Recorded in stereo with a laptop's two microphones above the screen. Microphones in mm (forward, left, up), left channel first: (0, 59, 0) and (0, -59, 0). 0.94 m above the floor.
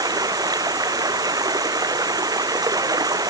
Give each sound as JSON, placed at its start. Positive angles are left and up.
{"t": 0.0, "sound": "running water", "side_deg": -30}